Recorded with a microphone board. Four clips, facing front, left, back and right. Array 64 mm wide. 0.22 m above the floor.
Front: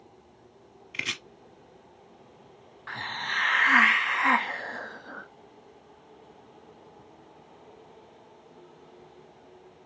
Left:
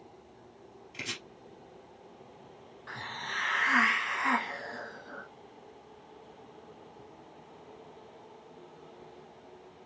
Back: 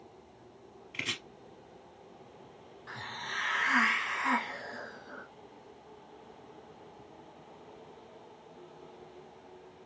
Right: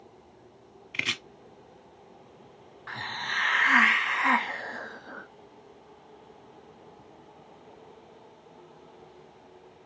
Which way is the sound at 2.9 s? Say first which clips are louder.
Right 5 dB, front 7 dB; 30° right.